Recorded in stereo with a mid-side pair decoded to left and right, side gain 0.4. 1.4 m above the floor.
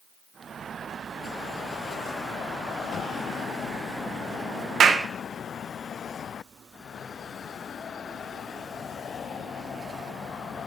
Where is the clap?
60° right, 0.8 m.